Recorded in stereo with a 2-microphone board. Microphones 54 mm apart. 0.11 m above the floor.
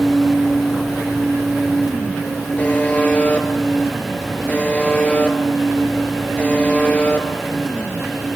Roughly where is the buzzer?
Left.